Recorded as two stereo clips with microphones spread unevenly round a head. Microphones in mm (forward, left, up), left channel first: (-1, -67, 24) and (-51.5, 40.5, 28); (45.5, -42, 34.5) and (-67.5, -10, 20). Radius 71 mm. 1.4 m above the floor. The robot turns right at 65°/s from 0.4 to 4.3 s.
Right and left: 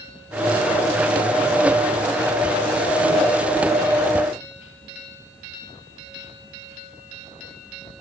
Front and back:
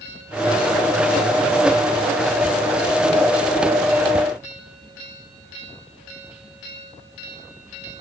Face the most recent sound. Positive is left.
No sound to turn to.